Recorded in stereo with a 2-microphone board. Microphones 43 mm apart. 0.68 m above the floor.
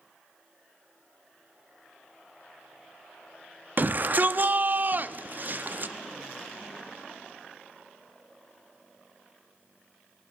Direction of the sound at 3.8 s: 45° right (ahead or behind).